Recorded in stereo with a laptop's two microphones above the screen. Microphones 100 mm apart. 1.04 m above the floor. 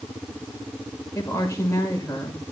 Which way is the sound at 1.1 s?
30° left (ahead or behind).